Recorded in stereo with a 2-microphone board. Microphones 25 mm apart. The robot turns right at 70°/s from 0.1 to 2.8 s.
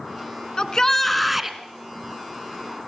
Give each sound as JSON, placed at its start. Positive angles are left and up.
{"t": 0.6, "sound": "a shout", "azimuth_deg": 135, "distance_m": 1.8}